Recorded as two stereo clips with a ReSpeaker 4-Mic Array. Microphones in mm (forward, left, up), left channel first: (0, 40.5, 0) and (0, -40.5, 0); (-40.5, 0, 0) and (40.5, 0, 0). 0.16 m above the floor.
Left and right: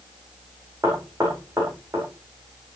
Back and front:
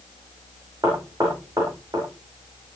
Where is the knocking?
40° right, 10 m.